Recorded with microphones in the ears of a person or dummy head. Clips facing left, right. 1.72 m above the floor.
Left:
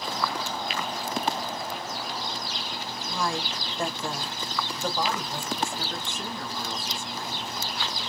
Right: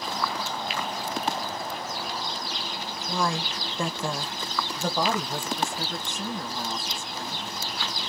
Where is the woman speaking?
75° right (ahead or behind), 0.9 m; by 7.5 s 20° right (ahead or behind), 2.5 m.